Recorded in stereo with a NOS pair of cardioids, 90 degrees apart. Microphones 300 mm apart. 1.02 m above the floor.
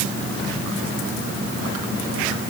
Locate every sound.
Only background noise.